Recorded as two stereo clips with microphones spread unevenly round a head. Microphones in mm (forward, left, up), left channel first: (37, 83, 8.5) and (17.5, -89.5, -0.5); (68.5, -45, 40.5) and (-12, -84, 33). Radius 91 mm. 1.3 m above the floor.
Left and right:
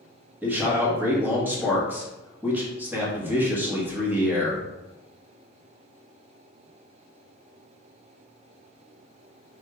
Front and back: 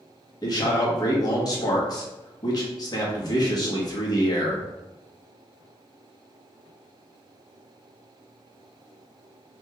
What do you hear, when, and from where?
0.4 s a man speaking: 15° right, 1.3 m